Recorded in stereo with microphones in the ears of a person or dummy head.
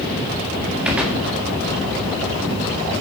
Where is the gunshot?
5° right (ahead or behind), 1.7 m.